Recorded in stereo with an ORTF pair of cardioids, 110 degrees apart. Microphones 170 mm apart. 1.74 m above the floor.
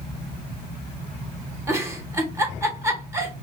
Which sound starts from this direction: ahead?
A giggle, at 1.7 s.